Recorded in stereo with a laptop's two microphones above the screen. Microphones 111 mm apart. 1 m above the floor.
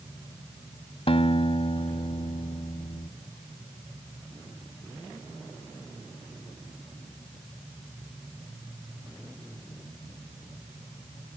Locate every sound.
1.1 s a guitar: 60° left (ahead or behind)